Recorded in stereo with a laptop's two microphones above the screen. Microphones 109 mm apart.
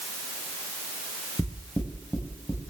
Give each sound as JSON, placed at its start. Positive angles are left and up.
{"t": 1.4, "sound": "knocking", "side_deg": 5, "distance_m": 3.5}